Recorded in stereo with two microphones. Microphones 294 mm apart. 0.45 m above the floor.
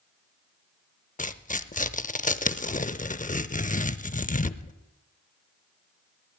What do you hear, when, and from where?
1.2 s tearing paper: 25° left (ahead or behind), 0.5 m